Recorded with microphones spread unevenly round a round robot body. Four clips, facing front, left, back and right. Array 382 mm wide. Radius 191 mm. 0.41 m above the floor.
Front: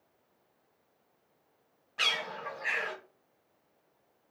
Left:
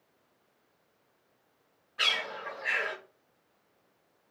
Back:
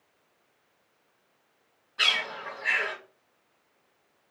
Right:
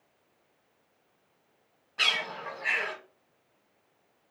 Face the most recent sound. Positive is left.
turn(degrees=-50)